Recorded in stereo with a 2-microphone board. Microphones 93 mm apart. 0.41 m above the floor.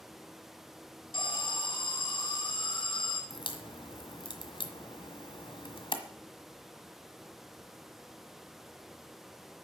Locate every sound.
1.1 s an alarm: 55° left (ahead or behind), 2 m
3.3 s a crack: 60° left (ahead or behind), 1.4 m